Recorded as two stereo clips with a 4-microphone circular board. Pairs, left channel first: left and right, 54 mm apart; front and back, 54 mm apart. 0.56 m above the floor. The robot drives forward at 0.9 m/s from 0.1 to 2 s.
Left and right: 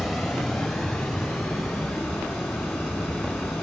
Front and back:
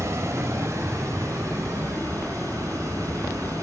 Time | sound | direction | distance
0.0 | running water | 175° right | 1.3 m